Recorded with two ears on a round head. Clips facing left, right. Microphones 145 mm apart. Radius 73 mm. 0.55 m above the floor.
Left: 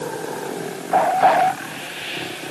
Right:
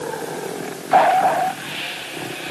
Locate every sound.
Only background noise.